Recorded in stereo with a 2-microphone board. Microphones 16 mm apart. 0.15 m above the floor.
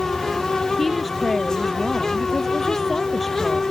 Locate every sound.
0.8 s a woman speaking: 20° left (ahead or behind)